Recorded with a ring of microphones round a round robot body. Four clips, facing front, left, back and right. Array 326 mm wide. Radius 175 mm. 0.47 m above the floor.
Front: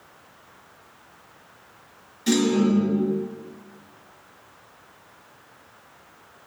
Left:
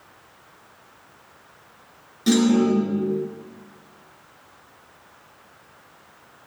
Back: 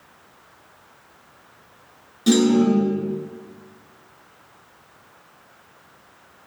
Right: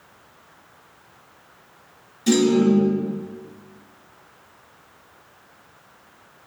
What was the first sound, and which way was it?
A clunk, 145° left.